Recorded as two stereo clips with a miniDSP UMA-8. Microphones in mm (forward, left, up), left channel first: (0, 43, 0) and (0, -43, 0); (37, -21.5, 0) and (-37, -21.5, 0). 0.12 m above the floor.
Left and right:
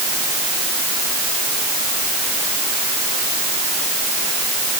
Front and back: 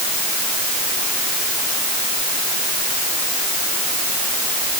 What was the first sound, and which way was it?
Only background noise.